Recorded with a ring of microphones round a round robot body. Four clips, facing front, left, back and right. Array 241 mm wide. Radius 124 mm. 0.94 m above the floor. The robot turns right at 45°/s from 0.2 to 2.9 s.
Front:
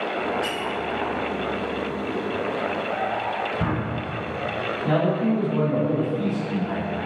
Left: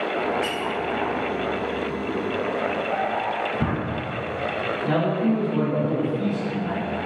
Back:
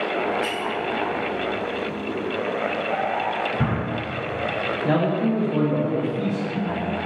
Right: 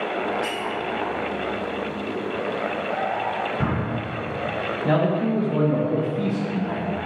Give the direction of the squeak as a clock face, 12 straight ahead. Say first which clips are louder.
Left 1 dB, back 1 dB; 8 o'clock.